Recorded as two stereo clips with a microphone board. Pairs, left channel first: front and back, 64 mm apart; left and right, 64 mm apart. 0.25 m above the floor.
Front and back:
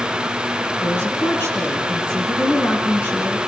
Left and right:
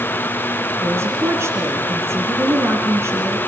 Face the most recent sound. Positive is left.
turn(degrees=-50)